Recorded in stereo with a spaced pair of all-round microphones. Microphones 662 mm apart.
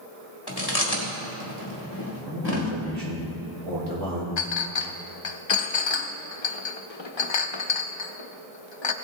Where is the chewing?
35° left (ahead or behind), 1.9 m.